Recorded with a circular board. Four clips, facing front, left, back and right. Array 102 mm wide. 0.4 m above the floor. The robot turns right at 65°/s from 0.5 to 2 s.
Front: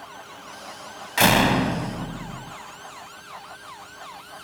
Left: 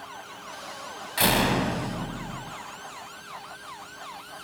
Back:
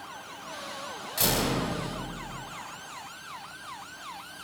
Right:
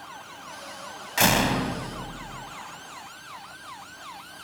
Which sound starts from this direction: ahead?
A door slam, at 1.2 s.